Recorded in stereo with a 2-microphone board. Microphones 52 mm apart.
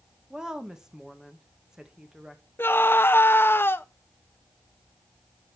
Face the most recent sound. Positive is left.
turn(degrees=40)  # may be behind; listen again after turning